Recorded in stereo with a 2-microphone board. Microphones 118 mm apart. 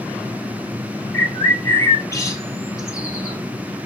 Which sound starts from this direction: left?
A bird, at 1.1 s.